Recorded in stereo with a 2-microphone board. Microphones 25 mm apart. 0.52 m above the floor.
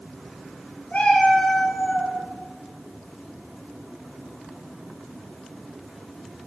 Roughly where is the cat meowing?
Left.